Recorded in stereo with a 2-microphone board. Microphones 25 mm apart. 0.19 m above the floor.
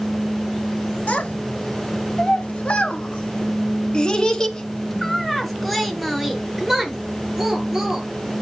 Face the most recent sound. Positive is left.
turn(degrees=-20)  # may be behind; listen again after turning